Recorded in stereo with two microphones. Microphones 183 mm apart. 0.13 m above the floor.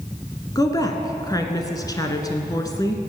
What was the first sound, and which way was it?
A woman speaking, 20° left (ahead or behind).